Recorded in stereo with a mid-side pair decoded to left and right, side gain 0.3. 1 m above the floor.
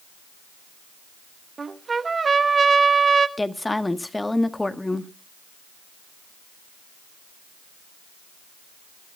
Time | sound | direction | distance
1.6 | a trumpet | 45° right | 1.0 m
3.4 | a woman speaking | 20° left | 1.4 m